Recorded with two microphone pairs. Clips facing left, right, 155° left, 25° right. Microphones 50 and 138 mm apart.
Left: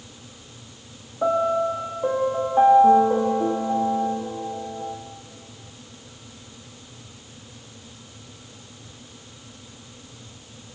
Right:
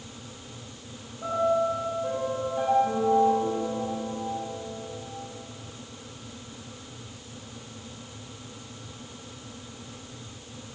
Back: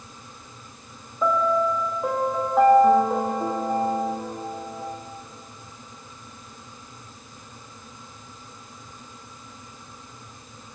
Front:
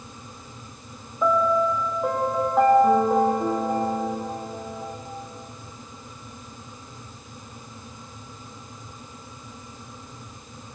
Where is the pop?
No pop in this recording.